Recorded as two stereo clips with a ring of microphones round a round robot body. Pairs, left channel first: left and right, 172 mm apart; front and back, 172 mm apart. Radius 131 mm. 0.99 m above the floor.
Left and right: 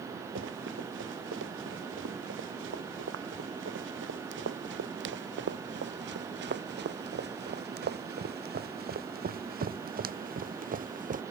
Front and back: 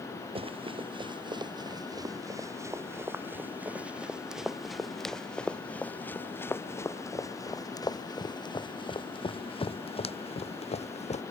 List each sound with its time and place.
0.3 s running footsteps: 125° right; by 11.2 s 50° right